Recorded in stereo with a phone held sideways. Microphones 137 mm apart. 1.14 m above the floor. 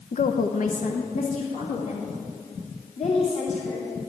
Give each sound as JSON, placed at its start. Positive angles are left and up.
{"t": 0.1, "sound": "a woman speaking", "side_deg": 65, "distance_m": 0.6}